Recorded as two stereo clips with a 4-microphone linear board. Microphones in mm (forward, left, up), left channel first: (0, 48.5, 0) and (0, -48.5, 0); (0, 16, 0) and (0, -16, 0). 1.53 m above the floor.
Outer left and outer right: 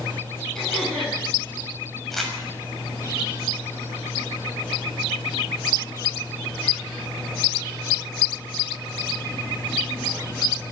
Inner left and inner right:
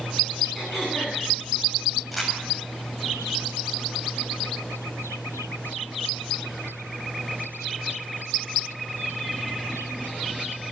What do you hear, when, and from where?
0.6 s throat clearing: 5° left (ahead or behind), 10 m
2.1 s crumpling: centre (ahead or behind), 6.5 m